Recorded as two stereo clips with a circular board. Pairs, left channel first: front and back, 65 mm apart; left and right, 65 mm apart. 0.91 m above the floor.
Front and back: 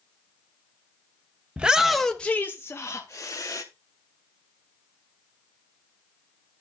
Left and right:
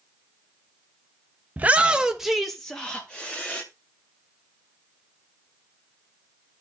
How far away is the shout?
About 0.7 m.